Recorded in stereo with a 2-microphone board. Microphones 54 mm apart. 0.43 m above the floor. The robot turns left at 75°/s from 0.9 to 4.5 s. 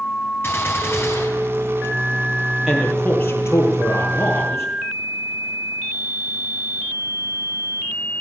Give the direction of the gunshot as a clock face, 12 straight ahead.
8 o'clock.